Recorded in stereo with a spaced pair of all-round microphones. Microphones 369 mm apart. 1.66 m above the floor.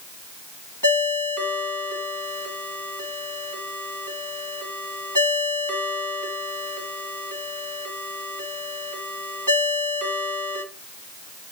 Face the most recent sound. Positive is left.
turn(degrees=-50)  # may be behind; listen again after turning